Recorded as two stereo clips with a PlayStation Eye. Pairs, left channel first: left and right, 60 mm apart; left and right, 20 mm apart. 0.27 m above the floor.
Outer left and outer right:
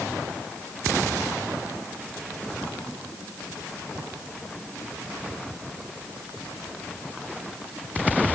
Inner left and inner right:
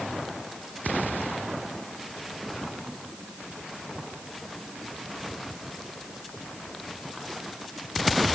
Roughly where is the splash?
I don't hear a splash.